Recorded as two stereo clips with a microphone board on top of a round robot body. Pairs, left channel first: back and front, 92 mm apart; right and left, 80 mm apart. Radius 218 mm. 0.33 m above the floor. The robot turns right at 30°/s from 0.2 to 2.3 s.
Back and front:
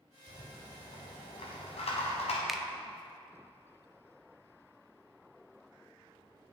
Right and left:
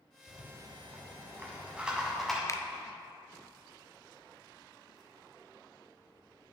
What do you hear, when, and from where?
0.3 s a rattle: 120° left, 1.1 m; by 2.4 s 175° right, 1.1 m
2.5 s a finger snap: 85° right, 0.7 m